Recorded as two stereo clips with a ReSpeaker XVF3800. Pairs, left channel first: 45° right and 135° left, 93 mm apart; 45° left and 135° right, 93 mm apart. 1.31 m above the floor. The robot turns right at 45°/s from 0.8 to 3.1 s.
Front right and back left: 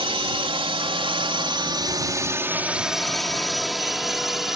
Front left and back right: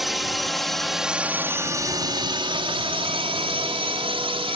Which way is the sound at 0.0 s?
135° left.